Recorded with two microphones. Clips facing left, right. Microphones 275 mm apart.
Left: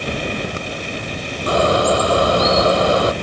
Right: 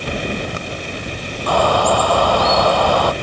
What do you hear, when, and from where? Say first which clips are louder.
1.5 s a bird: left 1 dB; 25° left (ahead or behind)